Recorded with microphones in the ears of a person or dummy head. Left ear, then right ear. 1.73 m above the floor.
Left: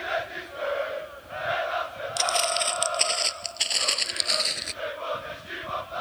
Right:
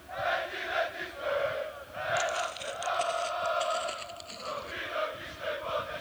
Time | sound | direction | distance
2.2 | footsteps | 40° left (ahead or behind) | ?